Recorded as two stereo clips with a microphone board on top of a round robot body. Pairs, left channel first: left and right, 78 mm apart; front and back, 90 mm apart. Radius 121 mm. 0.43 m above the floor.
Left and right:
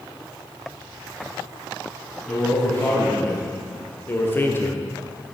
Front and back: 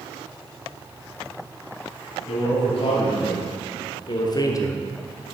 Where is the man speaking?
20° left, 4 m; by 5.3 s 145° left, 0.9 m.